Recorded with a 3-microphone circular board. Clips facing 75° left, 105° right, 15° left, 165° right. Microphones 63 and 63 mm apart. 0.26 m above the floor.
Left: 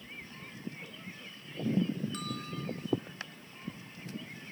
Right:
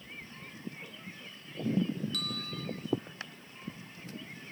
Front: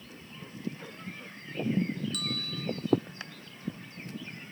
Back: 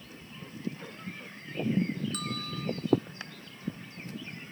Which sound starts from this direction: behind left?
A bell, at 2.1 s.